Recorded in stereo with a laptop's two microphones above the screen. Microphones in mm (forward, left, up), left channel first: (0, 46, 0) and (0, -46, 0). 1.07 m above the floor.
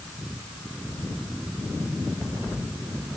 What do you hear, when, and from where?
Only background noise.